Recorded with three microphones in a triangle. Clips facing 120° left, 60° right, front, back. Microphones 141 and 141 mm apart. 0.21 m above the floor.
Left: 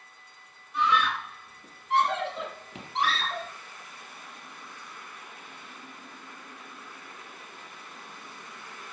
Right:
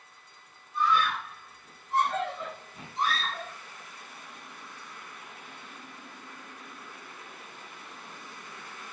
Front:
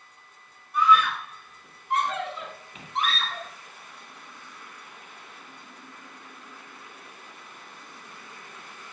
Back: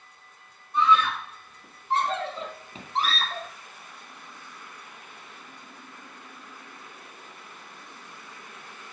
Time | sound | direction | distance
0.7 | a scream | 115° left | 8 m